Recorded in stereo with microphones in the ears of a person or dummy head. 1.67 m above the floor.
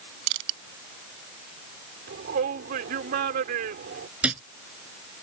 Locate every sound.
0.3 s crushing: 75° right (ahead or behind)
2.1 s a shout: 50° right (ahead or behind)
4.2 s a thud: 10° right (ahead or behind)